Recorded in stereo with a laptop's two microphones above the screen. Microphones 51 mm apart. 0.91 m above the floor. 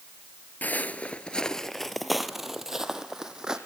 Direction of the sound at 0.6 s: 35° left (ahead or behind).